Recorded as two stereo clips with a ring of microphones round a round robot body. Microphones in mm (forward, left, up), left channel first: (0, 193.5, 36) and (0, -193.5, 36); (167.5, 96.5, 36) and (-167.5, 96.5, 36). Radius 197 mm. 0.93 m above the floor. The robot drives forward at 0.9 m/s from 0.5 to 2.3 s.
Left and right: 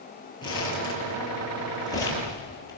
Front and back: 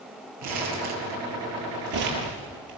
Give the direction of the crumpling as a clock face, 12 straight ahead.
6 o'clock.